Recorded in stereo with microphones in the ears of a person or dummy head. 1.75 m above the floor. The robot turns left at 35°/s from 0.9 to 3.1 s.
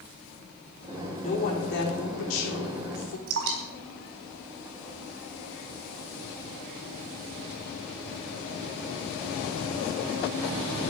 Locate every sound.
1.2 s a woman speaking: 140° left, 4 m; by 3.2 s 75° left, 4 m
3.3 s dripping: 65° right (ahead or behind), 4 m